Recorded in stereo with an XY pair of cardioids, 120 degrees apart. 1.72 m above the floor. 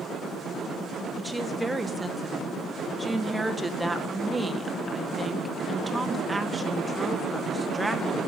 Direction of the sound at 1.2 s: 15° right.